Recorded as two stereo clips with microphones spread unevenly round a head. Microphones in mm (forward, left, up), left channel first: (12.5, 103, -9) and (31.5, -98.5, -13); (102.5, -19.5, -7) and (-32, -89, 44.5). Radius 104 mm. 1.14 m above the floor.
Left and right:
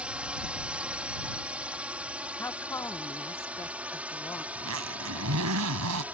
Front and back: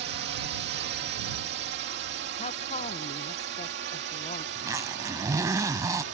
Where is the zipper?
90° right.